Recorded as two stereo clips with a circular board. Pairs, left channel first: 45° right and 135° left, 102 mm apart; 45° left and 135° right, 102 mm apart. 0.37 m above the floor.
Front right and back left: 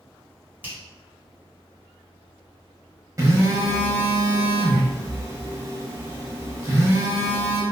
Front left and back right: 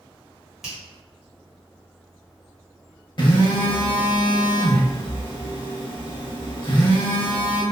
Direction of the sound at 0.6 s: 145° left.